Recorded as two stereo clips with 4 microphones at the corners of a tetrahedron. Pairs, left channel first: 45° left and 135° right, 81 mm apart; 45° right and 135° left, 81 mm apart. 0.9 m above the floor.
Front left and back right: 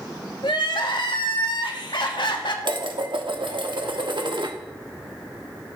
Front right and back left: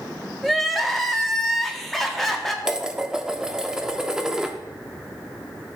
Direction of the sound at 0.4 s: 45° left.